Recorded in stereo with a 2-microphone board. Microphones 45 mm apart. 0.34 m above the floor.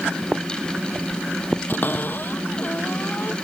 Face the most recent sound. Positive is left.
turn(degrees=40)  # may be behind; listen again after turning